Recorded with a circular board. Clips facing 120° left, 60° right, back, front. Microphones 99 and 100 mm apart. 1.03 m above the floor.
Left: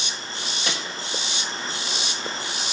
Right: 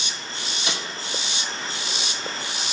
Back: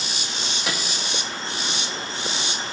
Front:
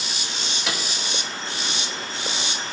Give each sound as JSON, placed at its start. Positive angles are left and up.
{"t": 0.7, "sound": "a snare drum", "azimuth_deg": 95, "distance_m": 4.0}